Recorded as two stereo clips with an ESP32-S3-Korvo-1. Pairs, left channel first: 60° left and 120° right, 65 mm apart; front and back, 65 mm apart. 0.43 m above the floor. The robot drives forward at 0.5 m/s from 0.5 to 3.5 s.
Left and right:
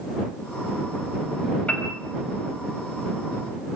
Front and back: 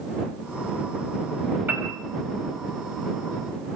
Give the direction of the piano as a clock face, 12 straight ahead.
8 o'clock.